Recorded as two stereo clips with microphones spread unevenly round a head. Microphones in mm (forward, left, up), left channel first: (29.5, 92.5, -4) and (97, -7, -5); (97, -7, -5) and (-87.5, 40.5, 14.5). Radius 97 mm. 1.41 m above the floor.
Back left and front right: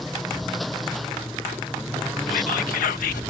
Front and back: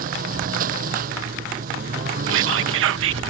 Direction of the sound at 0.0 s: 145° right.